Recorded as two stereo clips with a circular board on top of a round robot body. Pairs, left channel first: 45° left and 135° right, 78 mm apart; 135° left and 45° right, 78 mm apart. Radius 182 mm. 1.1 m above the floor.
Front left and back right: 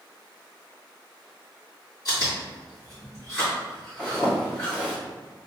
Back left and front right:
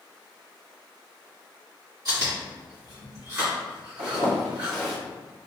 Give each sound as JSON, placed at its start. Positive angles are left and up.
{"t": 2.0, "sound": "chewing", "azimuth_deg": 0, "distance_m": 1.8}
{"t": 4.0, "sound": "a zipper", "azimuth_deg": -35, "distance_m": 0.7}